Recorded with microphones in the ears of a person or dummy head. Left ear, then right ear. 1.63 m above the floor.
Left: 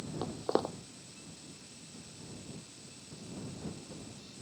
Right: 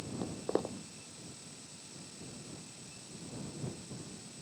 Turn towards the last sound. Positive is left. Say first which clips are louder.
# left 3 dB
turn(degrees=35)  # may be behind; listen again after turning